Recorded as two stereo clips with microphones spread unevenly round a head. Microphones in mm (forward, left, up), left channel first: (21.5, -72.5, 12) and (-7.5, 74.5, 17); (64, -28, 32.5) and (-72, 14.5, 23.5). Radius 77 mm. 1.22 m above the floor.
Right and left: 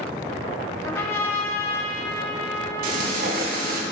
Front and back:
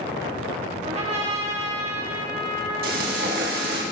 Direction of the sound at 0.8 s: 150° right.